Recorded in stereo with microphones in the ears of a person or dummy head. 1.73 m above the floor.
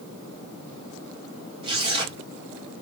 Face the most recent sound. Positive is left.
turn(degrees=-30)  # may be behind; listen again after turning